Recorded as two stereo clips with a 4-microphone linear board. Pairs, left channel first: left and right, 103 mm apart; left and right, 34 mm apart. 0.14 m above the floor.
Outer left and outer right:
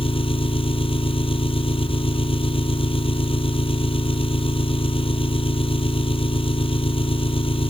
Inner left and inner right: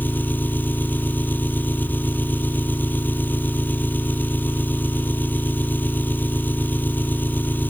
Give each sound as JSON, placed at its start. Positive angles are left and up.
{"t": 0.0, "sound": "an engine running", "side_deg": 65}